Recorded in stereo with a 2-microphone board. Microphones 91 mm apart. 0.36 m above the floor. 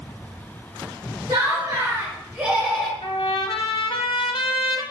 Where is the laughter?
40° right (ahead or behind), 1.3 m; by 2.9 s centre (ahead or behind), 1.1 m.